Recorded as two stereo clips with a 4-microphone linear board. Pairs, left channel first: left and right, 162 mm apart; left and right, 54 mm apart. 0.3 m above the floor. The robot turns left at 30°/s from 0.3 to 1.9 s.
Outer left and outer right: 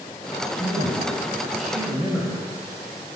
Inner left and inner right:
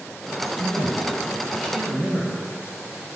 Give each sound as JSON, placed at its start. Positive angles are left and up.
{"t": 0.6, "sound": "a man speaking", "azimuth_deg": 30, "distance_m": 1.4}